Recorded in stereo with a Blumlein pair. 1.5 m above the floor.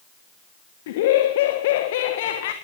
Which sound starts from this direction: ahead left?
Laughter, at 0.9 s.